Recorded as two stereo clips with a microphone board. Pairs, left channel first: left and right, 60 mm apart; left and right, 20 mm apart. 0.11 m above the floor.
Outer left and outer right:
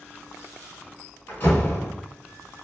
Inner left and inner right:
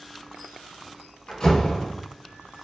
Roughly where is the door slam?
Left.